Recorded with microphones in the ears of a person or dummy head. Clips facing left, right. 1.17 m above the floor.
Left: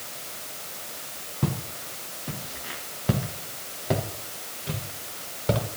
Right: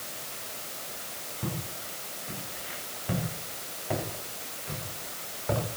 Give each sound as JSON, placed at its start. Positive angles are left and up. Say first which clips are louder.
{"t": 1.4, "sound": "footsteps", "louder": "left 6 dB", "side_deg": 75, "distance_m": 5.0}